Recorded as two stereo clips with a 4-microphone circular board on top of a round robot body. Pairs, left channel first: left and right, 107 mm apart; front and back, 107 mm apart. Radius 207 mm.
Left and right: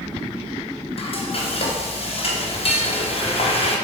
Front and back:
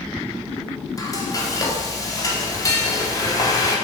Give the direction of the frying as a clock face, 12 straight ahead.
10 o'clock.